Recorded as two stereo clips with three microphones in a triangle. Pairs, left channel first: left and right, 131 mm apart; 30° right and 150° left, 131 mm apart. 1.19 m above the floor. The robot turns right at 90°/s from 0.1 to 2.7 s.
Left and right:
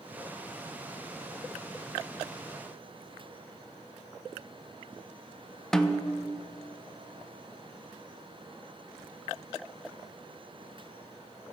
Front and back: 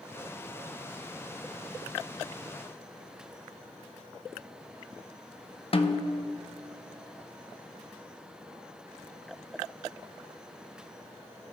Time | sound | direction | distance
5.7 | a snare drum | 5° left | 0.5 m